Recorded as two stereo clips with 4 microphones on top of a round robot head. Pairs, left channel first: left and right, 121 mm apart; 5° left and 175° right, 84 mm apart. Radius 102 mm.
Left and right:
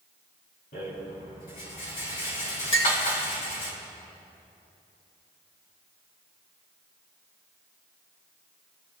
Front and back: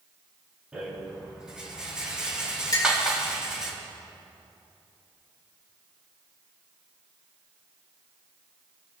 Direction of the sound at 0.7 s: 105° left.